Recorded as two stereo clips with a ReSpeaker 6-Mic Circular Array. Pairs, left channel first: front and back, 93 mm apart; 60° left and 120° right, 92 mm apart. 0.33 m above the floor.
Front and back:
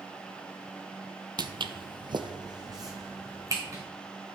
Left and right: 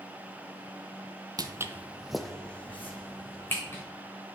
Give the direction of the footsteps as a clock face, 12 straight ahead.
5 o'clock.